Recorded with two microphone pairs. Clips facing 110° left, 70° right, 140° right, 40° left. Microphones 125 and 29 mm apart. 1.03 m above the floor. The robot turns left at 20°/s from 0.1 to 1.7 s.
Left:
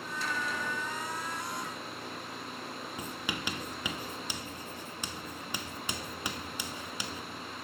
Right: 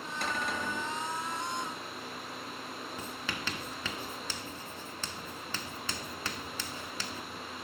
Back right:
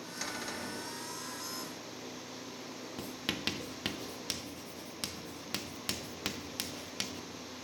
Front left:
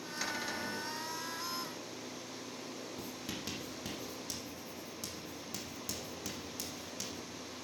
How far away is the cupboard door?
About 3.5 m.